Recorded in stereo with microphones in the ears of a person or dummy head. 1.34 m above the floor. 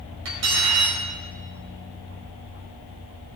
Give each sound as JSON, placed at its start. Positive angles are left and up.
{"t": 0.2, "sound": "cutlery clinking", "side_deg": -70, "distance_m": 3.5}